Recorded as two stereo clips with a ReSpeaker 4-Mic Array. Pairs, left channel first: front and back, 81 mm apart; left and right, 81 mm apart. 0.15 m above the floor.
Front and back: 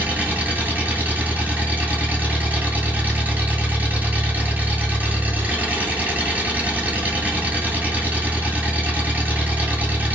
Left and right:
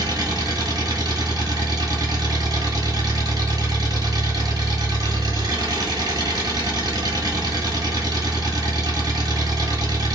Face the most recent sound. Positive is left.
turn(degrees=-115)